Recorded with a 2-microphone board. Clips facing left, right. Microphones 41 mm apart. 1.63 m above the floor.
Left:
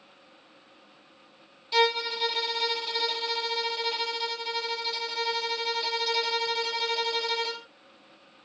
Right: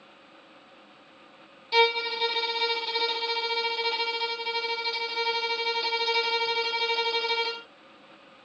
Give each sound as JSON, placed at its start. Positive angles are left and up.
{"t": 1.7, "sound": "a violin", "side_deg": -15, "distance_m": 0.6}